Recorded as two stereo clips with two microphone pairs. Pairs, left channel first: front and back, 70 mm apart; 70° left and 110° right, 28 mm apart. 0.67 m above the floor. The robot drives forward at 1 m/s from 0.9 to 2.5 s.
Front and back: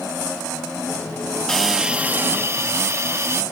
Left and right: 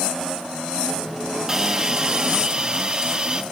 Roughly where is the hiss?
Right.